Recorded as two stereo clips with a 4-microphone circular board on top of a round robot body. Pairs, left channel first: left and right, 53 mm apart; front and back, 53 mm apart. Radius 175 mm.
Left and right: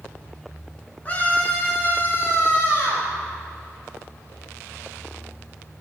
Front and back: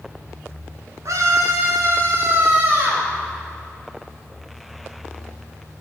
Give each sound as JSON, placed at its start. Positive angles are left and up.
{"t": 1.1, "sound": "a scream", "azimuth_deg": 155, "distance_m": 5.5}